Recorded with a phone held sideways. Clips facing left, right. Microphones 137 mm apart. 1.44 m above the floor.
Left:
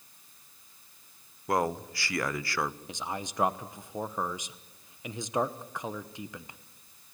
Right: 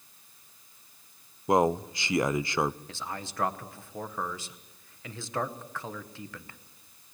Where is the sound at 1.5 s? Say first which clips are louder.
Right 5 dB; 20° right (ahead or behind), 0.6 m.